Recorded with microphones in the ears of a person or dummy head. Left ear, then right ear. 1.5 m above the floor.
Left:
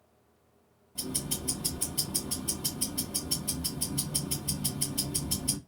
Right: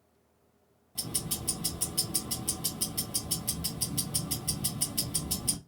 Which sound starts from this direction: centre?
Ticking, at 0.9 s.